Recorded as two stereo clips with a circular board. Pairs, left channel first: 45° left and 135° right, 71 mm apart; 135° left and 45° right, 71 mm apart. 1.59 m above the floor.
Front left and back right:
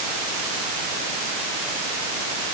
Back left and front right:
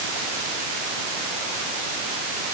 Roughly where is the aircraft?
I don't hear an aircraft.